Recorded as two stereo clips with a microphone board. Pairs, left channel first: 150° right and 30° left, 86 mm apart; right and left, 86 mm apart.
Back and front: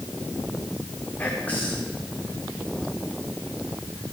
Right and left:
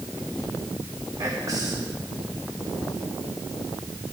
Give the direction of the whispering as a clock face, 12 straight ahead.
7 o'clock.